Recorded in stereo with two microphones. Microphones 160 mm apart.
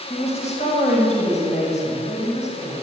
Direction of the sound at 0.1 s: 45° left (ahead or behind).